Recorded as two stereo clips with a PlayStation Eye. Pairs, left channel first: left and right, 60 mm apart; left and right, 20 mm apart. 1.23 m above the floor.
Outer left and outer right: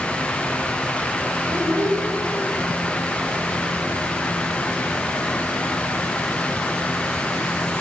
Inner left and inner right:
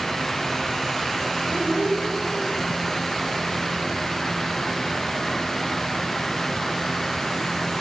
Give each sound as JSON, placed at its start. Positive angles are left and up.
{"t": 1.5, "sound": "a child speaking", "side_deg": -75, "distance_m": 4.5}